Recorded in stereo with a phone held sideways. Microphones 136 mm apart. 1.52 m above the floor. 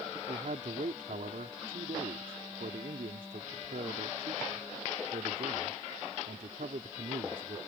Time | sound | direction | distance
0.3 | a man speaking | 75° right (ahead or behind) | ?